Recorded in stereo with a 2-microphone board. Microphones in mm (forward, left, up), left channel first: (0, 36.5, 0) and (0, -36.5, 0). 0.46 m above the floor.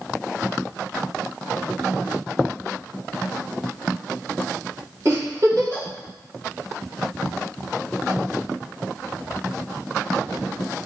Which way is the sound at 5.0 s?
40° right (ahead or behind).